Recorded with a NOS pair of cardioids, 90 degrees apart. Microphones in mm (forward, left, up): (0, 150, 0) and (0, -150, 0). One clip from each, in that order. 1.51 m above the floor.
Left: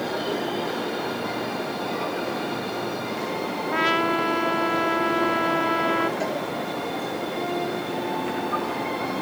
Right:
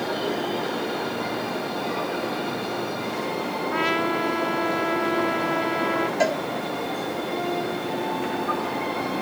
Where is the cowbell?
60° right.